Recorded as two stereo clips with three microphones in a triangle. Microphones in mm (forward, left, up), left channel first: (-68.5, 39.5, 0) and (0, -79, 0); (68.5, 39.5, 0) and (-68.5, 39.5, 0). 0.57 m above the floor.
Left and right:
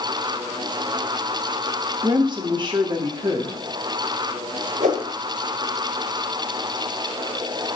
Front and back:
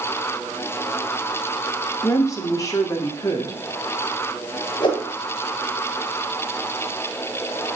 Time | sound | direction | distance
2.0 | a woman speaking | 45° right | 1.3 m
4.8 | a whoosh | 50° right | 1.9 m